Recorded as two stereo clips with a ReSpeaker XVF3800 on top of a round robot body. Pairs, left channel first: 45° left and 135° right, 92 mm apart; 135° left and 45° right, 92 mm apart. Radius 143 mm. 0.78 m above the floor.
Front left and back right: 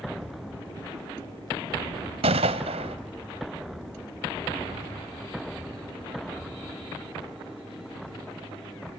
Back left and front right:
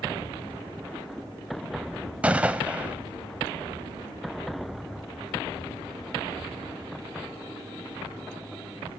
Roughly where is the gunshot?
Behind right.